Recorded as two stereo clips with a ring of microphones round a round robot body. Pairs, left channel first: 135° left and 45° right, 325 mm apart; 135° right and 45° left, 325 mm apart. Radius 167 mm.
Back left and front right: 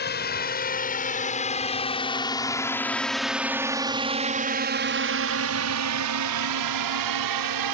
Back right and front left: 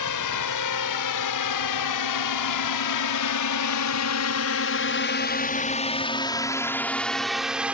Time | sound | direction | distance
0.0 | a drone | 165° right | ?